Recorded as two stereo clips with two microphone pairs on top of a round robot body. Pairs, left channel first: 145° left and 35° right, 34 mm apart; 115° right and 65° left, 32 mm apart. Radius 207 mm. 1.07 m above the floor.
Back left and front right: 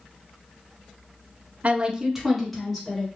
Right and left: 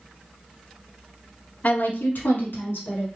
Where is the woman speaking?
70° right, 0.6 m; by 3.1 s 125° right, 1.6 m.